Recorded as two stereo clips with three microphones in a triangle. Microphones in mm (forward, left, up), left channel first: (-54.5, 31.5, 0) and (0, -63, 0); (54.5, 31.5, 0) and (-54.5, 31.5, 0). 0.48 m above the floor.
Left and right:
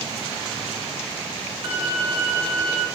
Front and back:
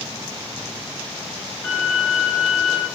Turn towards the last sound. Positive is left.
turn(degrees=-65)